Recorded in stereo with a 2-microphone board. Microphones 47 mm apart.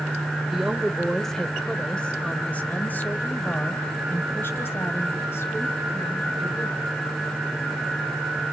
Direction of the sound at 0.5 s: 10° right (ahead or behind).